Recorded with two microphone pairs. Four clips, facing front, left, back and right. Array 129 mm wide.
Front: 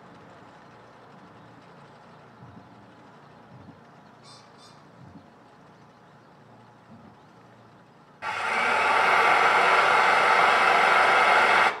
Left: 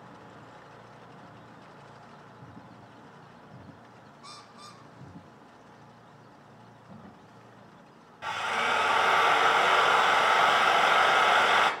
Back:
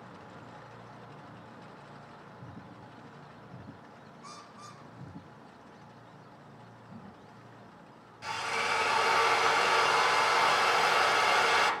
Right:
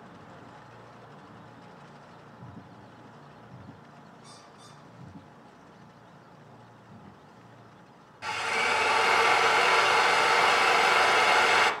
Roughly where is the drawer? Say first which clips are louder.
Left 3 dB, back 1 dB; left.